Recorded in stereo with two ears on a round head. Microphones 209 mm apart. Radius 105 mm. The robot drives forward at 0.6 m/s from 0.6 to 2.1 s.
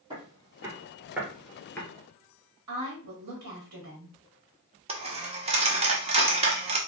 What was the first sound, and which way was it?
Footsteps, 20° right (ahead or behind).